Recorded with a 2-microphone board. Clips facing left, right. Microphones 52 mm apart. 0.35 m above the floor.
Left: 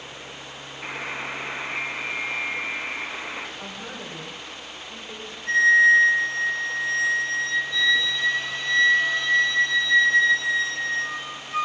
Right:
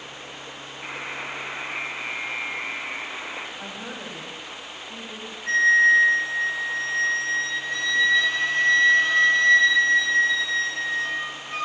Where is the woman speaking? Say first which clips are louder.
Right 1 dB; 20° right (ahead or behind), 2 m.